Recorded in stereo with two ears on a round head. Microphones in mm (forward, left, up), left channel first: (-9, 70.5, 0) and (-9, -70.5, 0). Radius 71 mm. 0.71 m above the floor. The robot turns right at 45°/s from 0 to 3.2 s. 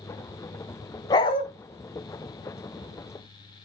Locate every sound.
1.1 s a dog barking: 25° left (ahead or behind), 0.8 m; by 1.4 s 35° left (ahead or behind), 0.8 m